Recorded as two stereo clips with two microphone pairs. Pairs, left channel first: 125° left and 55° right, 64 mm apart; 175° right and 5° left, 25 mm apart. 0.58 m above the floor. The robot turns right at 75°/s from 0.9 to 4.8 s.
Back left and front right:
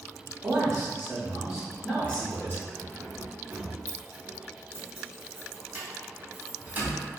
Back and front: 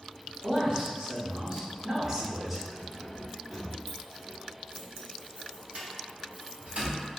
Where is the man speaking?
25° right, 0.9 m; by 2.6 s 100° left, 0.9 m.